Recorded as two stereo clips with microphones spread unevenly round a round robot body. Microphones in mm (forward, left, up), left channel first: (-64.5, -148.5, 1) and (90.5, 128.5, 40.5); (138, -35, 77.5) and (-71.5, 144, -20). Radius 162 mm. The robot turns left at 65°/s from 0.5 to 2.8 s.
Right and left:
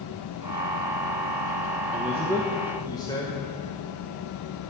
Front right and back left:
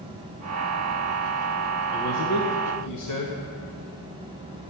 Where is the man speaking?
5° left, 1.1 m; by 3.4 s 55° right, 1.1 m.